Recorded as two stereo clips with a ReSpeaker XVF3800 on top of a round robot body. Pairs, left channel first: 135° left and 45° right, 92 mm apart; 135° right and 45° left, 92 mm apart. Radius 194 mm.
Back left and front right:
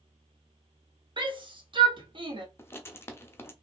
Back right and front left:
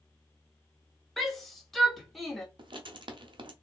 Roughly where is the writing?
Left.